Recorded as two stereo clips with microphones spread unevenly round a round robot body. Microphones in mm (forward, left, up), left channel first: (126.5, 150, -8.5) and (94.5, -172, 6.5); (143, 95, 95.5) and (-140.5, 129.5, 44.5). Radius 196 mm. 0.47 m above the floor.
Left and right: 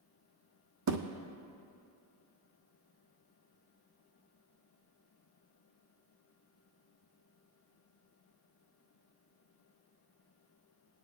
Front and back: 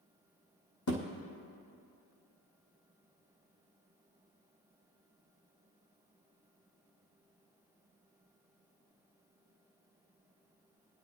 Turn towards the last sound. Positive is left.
turn(degrees=-60)